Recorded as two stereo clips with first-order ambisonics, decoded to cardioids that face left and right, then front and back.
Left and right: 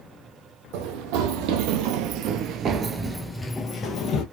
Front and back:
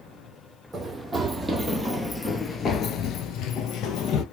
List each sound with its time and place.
0.7 s running footsteps: 100° right, 1.4 m; by 4.2 s 40° left, 0.9 m